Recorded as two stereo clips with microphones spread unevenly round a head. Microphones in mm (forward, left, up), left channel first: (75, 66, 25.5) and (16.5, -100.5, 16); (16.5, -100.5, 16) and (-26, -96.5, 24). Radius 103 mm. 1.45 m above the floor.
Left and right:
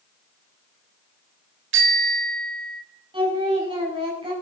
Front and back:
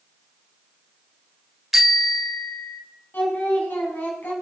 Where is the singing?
50° right, 6.5 m.